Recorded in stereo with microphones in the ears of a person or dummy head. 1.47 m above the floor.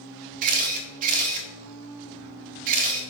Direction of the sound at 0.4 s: 45° right (ahead or behind).